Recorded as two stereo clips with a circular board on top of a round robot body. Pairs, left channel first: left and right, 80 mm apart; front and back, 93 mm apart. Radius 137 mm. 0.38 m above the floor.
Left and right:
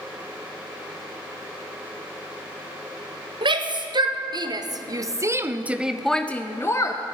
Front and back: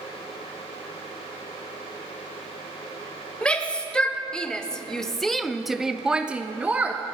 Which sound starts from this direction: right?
A shout, at 3.4 s.